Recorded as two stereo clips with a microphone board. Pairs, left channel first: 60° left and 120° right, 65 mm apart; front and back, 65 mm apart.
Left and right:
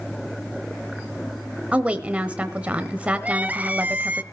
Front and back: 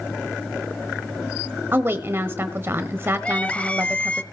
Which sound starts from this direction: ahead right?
Crying, at 3.2 s.